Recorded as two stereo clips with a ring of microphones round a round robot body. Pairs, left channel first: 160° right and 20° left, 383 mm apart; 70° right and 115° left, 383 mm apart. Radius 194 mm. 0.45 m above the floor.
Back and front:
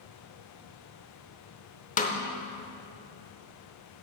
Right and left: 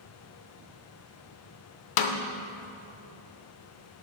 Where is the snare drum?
90° right, 0.8 m.